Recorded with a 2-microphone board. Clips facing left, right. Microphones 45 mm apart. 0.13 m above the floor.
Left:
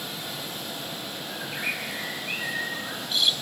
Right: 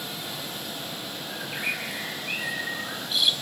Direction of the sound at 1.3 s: 5° right (ahead or behind).